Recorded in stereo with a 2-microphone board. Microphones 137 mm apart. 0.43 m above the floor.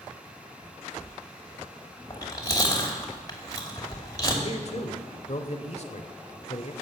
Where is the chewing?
30° left (ahead or behind), 2.5 m.